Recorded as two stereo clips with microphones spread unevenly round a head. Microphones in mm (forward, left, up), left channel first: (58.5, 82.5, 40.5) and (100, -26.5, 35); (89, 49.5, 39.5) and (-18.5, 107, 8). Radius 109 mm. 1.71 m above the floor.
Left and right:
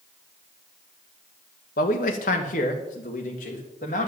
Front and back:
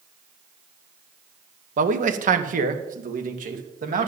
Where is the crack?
No crack in this recording.